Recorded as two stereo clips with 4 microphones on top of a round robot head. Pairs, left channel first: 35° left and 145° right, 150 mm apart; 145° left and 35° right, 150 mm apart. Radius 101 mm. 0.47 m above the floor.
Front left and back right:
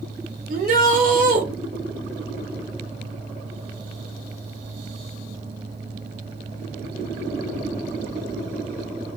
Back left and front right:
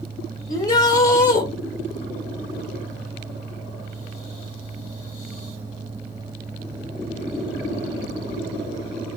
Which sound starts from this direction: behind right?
A shout, at 0.5 s.